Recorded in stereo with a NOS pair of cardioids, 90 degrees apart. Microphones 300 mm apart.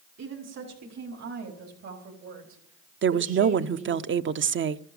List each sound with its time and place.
0.2 s a woman speaking: 60° right, 5.5 m; by 4.0 s 70° right, 3 m
3.0 s a woman speaking: 40° right, 0.8 m